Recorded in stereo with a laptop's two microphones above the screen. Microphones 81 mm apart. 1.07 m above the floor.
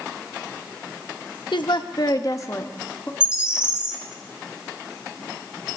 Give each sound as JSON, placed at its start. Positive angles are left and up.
{"t": 1.5, "sound": "a woman speaking", "side_deg": 80, "distance_m": 0.9}
{"t": 3.2, "sound": "a bird", "side_deg": -15, "distance_m": 2.0}